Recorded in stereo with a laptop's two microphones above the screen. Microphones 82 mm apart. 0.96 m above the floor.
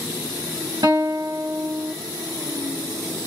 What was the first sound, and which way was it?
A guitar, 60° right (ahead or behind).